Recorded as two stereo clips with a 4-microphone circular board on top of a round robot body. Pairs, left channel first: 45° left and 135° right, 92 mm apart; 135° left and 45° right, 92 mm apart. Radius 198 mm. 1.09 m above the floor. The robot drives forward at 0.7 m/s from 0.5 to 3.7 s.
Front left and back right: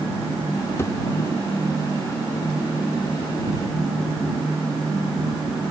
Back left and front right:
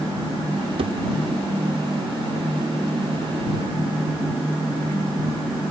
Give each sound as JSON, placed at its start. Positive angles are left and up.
{"t": 0.8, "sound": "a thud", "azimuth_deg": -20}